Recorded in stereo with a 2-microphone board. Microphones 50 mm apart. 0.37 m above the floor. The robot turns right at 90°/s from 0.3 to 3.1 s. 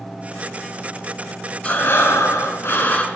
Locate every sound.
1.6 s breathing: 30° left, 0.6 m; by 3.0 s 155° left, 0.6 m